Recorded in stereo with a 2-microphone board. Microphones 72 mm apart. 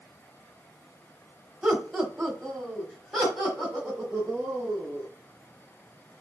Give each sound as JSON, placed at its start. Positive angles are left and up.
{"t": 1.6, "sound": "laughter", "side_deg": 0, "distance_m": 1.3}